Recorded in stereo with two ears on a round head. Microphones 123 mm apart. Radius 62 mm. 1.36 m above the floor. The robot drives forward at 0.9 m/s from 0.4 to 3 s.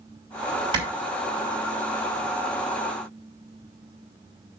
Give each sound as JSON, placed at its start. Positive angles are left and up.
{"t": 0.7, "sound": "a clap", "side_deg": -35, "distance_m": 5.5}